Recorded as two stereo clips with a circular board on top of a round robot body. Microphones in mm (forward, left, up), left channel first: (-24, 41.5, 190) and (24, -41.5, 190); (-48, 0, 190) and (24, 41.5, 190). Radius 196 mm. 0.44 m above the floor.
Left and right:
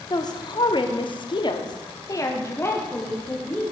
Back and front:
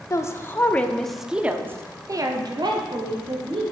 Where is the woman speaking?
160° left, 1.3 m; by 3.6 s 45° left, 1.9 m.